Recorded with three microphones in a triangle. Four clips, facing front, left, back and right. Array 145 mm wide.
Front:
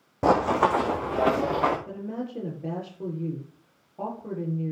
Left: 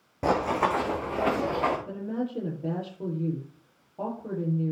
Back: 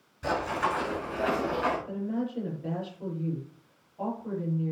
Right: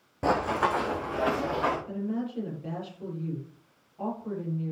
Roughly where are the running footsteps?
Ahead.